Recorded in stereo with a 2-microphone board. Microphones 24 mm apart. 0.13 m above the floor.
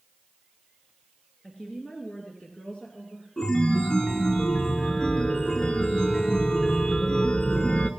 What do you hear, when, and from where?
1.4 s a woman speaking: 25° left (ahead or behind), 2 m; by 3.3 s 65° left (ahead or behind), 3.5 m
3.4 s a chime: 35° left (ahead or behind), 0.8 m